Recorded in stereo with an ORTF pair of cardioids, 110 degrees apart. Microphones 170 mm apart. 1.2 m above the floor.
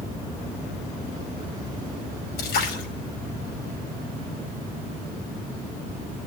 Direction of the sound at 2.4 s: 70° left.